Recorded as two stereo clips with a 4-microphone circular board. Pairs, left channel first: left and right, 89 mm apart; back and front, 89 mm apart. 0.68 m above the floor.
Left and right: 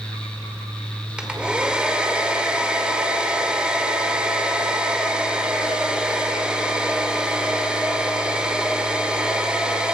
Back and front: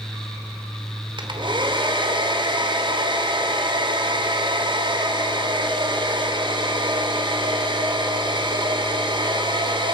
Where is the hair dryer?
10° right, 2.5 m.